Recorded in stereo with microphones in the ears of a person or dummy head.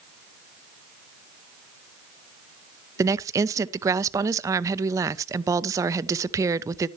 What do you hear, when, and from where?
3.0 s a woman speaking: 15° right (ahead or behind), 0.6 m